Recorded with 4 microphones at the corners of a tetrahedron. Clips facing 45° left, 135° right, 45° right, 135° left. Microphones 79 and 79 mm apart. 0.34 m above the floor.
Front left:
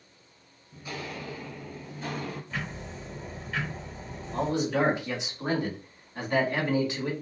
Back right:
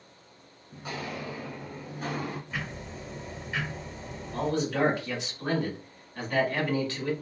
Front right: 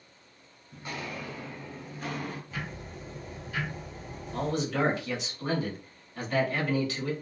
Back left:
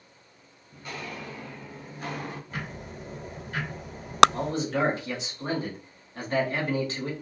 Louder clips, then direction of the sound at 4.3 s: Front left 1 dB, back left 1 dB; 105° left.